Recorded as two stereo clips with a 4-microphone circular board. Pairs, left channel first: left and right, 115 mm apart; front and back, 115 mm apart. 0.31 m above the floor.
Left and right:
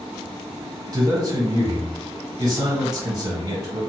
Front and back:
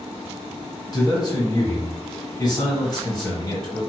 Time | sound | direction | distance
0.9 | a man speaking | 45° right | 1.7 m